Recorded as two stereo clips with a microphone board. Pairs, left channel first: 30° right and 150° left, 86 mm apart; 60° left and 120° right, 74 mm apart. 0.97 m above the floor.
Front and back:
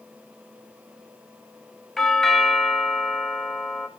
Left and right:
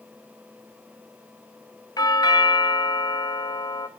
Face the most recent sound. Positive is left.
turn(degrees=55)